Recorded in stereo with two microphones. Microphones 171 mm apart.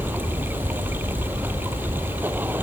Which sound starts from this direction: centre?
Running water, at 0.0 s.